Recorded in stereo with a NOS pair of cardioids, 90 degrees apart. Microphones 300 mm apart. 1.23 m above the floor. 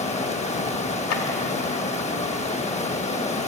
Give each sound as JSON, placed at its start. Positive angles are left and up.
{"t": 0.0, "sound": "running water", "azimuth_deg": 20, "distance_m": 1.1}
{"t": 1.1, "sound": "a clap", "azimuth_deg": 55, "distance_m": 1.9}